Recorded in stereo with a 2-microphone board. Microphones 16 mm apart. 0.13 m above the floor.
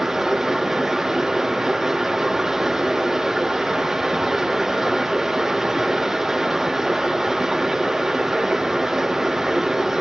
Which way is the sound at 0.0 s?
10° right (ahead or behind).